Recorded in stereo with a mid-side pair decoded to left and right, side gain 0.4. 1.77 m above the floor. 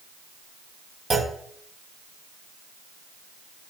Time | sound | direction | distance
1.1 | a clunk | 35° right | 0.6 m